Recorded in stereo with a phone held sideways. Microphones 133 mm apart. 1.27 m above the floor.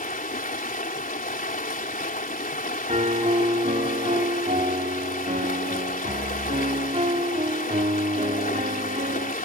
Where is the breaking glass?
I don't hear breaking glass.